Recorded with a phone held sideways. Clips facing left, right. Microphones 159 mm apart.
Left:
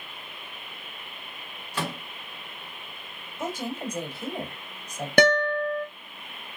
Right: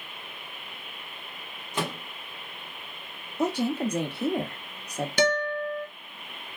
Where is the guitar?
55° left (ahead or behind), 0.7 m.